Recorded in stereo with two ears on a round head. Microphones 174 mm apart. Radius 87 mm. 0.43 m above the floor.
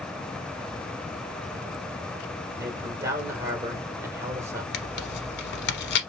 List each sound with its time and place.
2.6 s a man speaking: 15° right (ahead or behind), 1.4 m
4.7 s tearing paper: 60° left (ahead or behind), 0.9 m